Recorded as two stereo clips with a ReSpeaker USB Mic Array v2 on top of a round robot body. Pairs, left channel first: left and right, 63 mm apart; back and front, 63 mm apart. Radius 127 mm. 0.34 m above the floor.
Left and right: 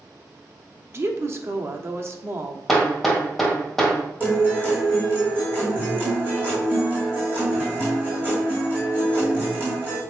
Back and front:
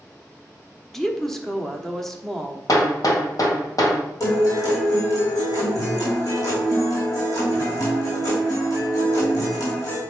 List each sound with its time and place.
0.9 s a woman speaking: 100° right, 1.3 m
2.7 s hammering: straight behind, 1.7 m
4.2 s a guitar: 150° right, 4 m